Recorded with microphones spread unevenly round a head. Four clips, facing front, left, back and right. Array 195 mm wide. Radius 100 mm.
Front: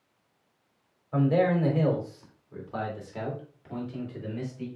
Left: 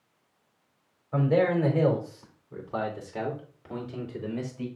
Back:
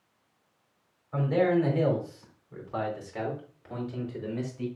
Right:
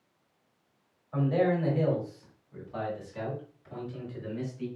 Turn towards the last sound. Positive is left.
turn(degrees=115)